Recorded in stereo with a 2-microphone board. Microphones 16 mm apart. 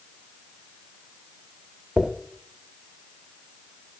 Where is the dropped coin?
40° right (ahead or behind), 1.1 m.